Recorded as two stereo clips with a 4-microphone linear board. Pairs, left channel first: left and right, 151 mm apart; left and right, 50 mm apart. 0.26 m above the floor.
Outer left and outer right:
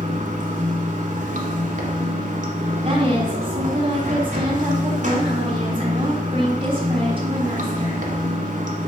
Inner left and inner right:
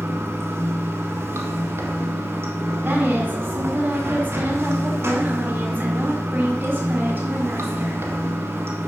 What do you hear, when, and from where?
0.0 s running water: 60° right (ahead or behind), 1.1 m
2.9 s a woman speaking: 40° right (ahead or behind), 1.7 m